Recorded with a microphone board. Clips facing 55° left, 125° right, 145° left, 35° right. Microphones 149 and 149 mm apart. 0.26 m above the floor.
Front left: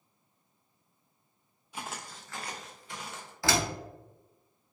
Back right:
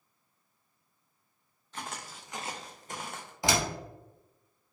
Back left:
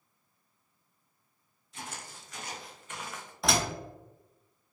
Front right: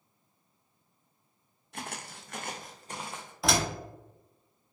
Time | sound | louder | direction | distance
1.7 | footsteps | even, front right 3 dB | 20° right | 0.7 m
3.4 | a door slam | even, front right 1 dB | 120° right | 0.8 m